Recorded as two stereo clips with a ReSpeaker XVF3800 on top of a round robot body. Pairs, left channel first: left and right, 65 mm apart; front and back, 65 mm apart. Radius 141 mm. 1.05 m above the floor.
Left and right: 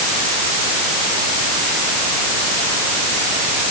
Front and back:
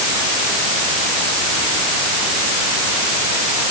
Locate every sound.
Only background noise.